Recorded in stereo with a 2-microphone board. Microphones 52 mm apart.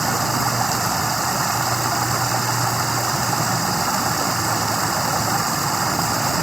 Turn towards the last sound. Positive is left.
turn(degrees=-5)  # may be behind; listen again after turning